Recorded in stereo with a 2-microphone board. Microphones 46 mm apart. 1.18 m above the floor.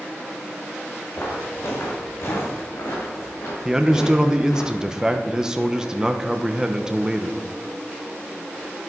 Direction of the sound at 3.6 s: 15° right (ahead or behind).